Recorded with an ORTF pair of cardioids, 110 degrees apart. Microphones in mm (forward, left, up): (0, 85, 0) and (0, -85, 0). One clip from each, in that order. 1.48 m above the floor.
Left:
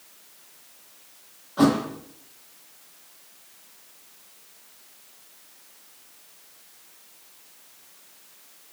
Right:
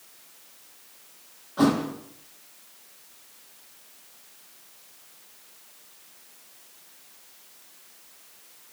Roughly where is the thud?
Ahead.